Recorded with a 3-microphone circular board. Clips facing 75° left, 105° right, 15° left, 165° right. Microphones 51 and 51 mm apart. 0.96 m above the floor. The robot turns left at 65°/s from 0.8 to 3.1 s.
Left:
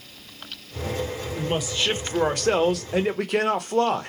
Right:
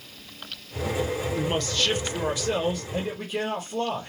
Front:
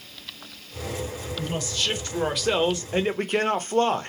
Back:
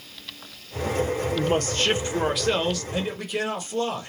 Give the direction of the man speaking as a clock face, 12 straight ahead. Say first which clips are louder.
Left 3 dB, back 4 dB; 6 o'clock.